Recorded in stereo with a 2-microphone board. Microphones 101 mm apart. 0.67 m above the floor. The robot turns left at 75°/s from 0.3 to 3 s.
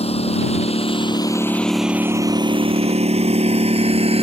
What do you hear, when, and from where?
0.0 s a lawn mower: 75° left (ahead or behind); by 4.2 s 75° right (ahead or behind)